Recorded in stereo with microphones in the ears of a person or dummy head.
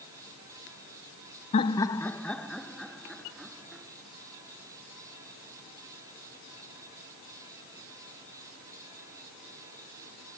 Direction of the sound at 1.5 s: 35° left (ahead or behind).